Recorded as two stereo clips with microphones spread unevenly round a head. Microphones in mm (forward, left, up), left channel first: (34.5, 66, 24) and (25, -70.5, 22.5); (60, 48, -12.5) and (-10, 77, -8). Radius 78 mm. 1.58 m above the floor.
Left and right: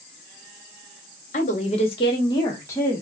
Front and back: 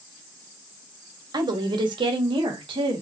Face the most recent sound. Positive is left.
turn(degrees=165)